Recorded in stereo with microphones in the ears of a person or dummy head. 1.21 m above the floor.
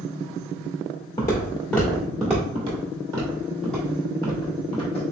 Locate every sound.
1.2 s footsteps: 20° left (ahead or behind), 1.2 m; by 2.5 s 15° right (ahead or behind), 1.2 m
2.5 s footsteps: 30° right (ahead or behind), 1.6 m; by 5.0 s 35° left (ahead or behind), 1.4 m